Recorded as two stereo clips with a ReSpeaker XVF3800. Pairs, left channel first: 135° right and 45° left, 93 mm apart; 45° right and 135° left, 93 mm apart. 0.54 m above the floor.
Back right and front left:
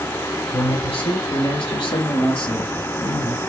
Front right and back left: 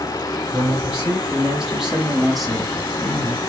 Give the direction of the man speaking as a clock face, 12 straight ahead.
5 o'clock.